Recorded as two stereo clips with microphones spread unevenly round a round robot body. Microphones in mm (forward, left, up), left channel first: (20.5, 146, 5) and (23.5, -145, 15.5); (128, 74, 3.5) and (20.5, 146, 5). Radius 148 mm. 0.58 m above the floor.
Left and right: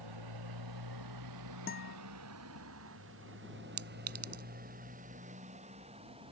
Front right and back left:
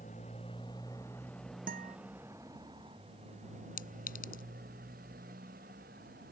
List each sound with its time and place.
0.0 s a motorcycle: 100° right; by 6.3 s 165° right
1.7 s a guitar: 150° left
3.8 s a clink: 50° right